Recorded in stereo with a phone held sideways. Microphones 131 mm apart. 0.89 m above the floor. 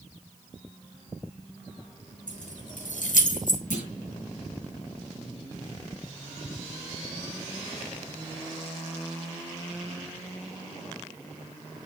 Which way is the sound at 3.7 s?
80° left.